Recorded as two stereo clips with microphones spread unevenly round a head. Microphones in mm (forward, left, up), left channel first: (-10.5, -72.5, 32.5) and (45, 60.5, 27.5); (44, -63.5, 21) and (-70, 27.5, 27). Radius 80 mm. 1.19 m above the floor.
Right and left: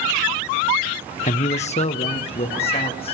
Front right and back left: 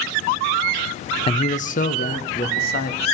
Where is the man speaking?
85° right, 0.7 m; by 3.1 s 60° right, 3 m.